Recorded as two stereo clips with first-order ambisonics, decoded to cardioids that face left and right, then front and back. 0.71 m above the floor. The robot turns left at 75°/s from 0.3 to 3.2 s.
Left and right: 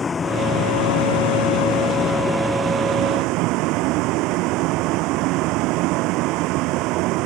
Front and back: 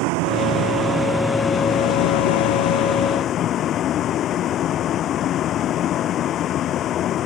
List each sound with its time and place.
0.0 s a vehicle: 160° left; by 7.3 s 55° right